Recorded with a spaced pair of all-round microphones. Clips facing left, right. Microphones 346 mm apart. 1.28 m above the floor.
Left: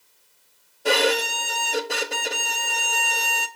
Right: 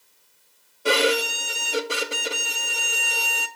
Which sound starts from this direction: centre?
A violin, at 0.8 s.